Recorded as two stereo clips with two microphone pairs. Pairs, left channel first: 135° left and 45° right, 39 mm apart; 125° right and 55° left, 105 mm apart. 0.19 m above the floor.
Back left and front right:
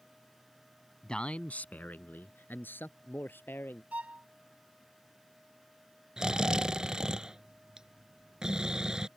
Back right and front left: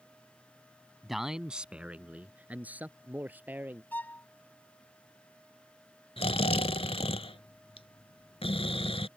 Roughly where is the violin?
Ahead right.